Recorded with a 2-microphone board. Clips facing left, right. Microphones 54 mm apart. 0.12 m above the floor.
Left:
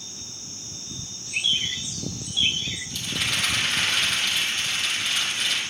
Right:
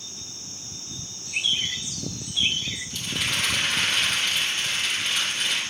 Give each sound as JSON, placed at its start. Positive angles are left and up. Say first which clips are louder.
{"t": 1.2, "sound": "a bird", "louder": "left 1 dB", "side_deg": -75, "distance_m": 5.5}
{"t": 2.9, "sound": "a rattle", "louder": "even", "side_deg": -35, "distance_m": 4.0}